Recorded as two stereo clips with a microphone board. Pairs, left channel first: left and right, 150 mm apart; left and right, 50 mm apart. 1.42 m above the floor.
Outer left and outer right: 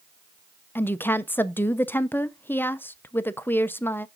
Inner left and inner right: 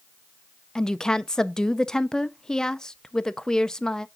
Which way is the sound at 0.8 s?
15° left (ahead or behind).